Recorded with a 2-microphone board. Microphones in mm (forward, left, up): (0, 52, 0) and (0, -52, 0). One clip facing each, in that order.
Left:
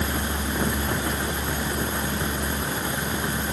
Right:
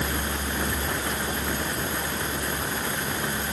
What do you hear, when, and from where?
Only background noise.